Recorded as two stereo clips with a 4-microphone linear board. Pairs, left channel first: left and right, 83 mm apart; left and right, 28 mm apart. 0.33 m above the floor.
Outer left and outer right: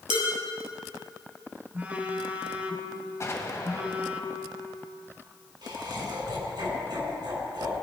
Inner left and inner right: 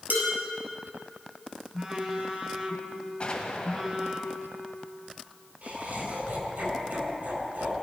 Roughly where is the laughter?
Right.